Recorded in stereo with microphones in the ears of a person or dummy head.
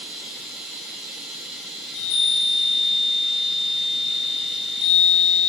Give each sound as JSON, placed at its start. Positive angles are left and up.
{"t": 0.0, "sound": "running water", "side_deg": 5, "distance_m": 4.0}
{"t": 1.8, "sound": "a chime", "side_deg": 80, "distance_m": 6.0}